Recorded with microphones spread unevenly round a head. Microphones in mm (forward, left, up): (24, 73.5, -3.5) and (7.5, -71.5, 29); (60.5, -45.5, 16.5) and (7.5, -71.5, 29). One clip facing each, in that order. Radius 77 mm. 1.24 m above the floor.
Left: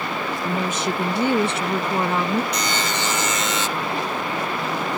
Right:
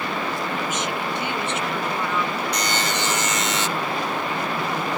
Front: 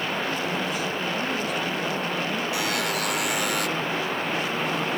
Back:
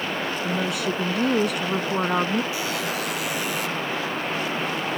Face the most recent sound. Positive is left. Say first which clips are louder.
# even, front 1 dB
turn(degrees=85)